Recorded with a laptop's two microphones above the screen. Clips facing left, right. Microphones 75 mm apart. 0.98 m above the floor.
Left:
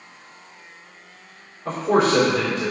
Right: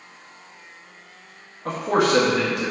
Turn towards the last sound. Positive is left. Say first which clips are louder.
# left 2 dB
turn(degrees=-60)  # may be behind; listen again after turning